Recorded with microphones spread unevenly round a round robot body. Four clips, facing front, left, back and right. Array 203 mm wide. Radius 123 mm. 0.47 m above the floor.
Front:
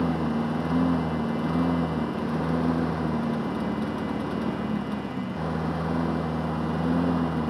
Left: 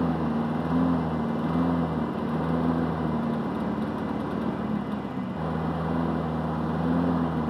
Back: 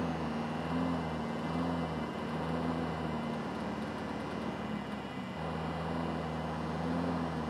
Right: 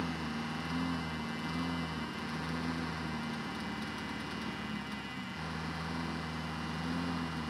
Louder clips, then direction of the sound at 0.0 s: Left 12 dB, front 10 dB; 40° left.